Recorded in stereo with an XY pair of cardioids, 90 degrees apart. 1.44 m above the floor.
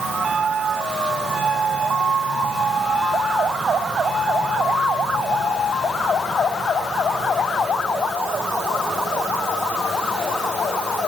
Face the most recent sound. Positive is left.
No sound to turn to.